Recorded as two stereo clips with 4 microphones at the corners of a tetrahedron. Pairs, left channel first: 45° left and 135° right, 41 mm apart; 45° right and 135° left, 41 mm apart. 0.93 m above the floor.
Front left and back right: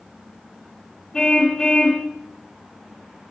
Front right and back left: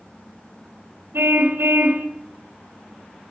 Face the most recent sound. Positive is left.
turn(degrees=115)